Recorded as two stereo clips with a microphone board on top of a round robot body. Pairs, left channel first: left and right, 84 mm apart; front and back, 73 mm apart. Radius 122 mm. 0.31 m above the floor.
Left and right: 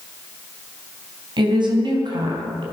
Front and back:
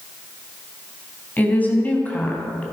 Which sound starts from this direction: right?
A woman speaking, at 1.4 s.